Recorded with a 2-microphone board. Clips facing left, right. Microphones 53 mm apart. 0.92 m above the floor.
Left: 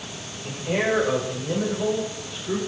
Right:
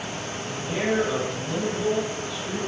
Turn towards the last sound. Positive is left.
turn(degrees=55)  # may be behind; listen again after turning